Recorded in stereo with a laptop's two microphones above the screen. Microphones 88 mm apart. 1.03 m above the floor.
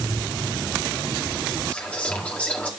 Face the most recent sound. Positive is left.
turn(degrees=15)  # may be behind; listen again after turning